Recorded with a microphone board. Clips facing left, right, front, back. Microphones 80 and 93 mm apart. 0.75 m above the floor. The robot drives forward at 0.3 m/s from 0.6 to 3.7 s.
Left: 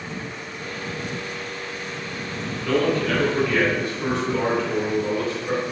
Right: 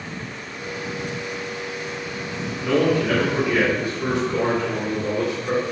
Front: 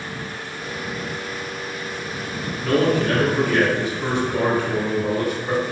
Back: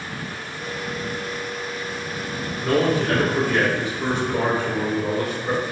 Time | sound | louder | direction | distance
2.6 | a man speaking | right 2 dB, front 1 dB | 135° right | 1.1 m